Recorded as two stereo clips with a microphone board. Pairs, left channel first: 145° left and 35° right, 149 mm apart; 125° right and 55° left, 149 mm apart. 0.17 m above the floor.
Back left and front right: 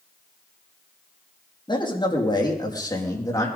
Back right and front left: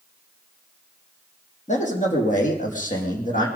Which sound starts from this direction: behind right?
A man speaking, at 1.7 s.